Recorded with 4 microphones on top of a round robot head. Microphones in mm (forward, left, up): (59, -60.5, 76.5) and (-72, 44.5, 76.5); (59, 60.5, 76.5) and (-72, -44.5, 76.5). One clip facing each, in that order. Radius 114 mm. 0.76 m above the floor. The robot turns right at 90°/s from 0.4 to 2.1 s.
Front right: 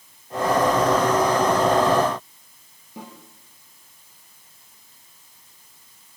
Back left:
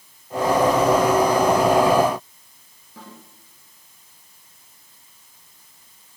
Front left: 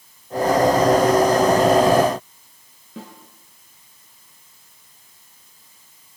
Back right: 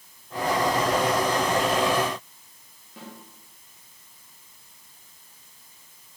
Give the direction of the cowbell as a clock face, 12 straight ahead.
I don't hear a cowbell.